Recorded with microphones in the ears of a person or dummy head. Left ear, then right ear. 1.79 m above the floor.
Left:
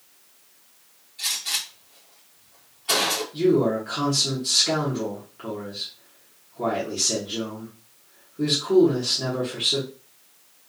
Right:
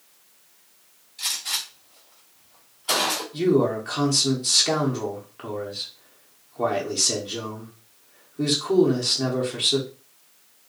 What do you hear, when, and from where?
1.2 s a gunshot: 15° right (ahead or behind), 1.5 m
3.3 s a man speaking: 30° right (ahead or behind), 0.9 m